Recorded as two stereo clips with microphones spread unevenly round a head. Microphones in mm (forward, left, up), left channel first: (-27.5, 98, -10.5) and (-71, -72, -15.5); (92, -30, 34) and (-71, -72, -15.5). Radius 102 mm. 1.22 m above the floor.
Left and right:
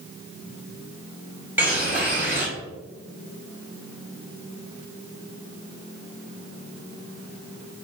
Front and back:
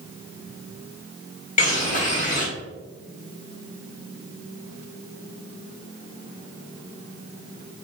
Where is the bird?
25° right, 1.9 m.